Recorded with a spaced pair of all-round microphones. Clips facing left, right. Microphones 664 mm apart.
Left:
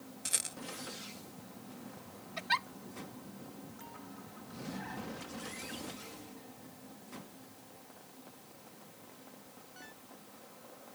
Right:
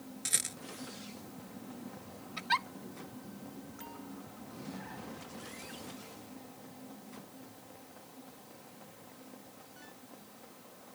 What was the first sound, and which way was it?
A rattle, 50° right (ahead or behind).